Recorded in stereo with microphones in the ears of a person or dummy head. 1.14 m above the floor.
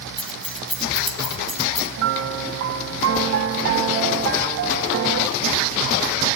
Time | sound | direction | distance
0.2 | keys jangling | 5° left (ahead or behind) | 0.9 m
2.0 | a piano | 65° right (ahead or behind) | 0.8 m